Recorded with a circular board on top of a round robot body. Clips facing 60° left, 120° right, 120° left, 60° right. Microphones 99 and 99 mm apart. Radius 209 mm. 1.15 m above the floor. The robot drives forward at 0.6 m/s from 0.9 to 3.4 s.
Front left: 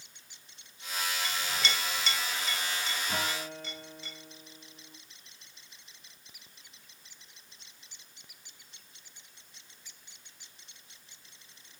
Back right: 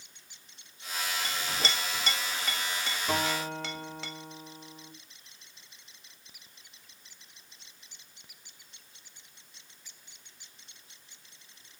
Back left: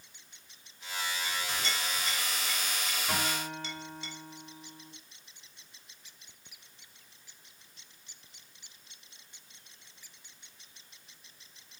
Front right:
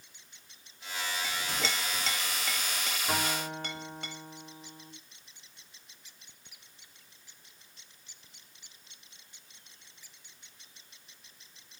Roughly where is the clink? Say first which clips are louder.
Back right 1 dB, front right 1 dB; ahead right.